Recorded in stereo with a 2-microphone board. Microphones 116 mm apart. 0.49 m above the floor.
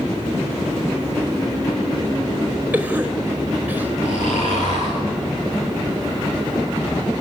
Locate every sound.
2.7 s a cough: 15° right (ahead or behind), 2.5 m
4.0 s snoring: 85° left, 9 m